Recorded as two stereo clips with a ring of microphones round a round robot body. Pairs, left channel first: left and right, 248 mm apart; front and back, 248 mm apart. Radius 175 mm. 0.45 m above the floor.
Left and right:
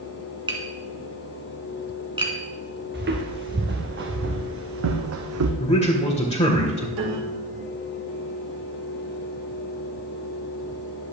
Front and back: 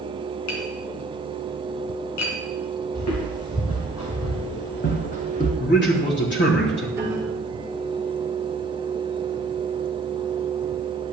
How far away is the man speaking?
About 2 m.